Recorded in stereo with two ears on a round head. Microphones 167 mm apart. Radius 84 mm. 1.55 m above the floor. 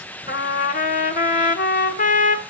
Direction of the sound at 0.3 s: 50° left (ahead or behind).